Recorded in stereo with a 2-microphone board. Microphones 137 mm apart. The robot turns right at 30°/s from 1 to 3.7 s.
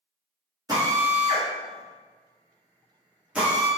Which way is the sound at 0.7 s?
25° right (ahead or behind).